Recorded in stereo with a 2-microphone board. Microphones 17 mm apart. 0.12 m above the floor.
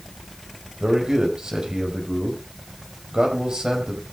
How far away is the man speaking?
About 5 m.